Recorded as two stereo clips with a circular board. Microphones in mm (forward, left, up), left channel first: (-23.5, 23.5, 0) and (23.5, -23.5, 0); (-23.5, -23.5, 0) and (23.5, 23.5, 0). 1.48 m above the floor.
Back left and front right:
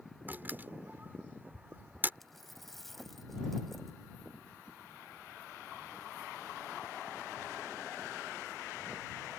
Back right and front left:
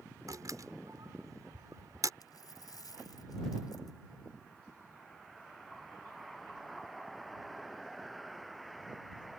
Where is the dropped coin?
135° right.